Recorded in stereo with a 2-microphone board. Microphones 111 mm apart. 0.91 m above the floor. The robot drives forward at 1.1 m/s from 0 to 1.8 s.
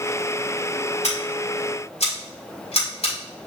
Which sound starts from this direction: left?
Scissors, at 1.0 s.